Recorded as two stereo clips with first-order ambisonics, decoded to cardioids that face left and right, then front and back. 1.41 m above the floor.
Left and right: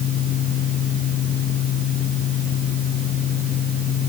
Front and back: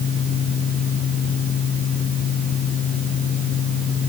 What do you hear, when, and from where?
Only background noise.